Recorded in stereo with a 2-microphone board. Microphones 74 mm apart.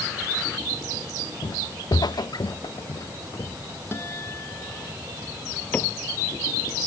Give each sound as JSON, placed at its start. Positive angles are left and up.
{"t": 1.4, "sound": "footsteps", "side_deg": 80}
{"t": 3.9, "sound": "a guitar", "side_deg": 35}
{"t": 5.7, "sound": "a cupboard door", "side_deg": 20}